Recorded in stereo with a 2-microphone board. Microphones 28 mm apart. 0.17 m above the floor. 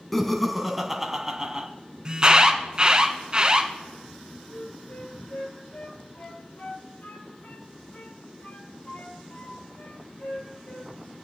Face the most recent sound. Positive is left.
turn(degrees=60)  # may be behind; listen again after turning